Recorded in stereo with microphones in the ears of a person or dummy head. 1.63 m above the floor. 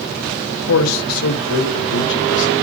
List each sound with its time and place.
0.7 s a man speaking: 75° left (ahead or behind), 0.8 m; by 2.5 s 65° left (ahead or behind), 1.7 m